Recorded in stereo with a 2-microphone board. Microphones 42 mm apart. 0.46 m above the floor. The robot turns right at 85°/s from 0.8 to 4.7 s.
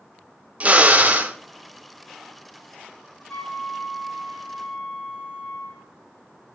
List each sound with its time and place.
0.6 s a drill: 115° right, 0.8 m; by 1.4 s 70° right, 0.8 m
3.3 s a flute: 35° left, 2.5 m; by 5.9 s 155° left, 2.5 m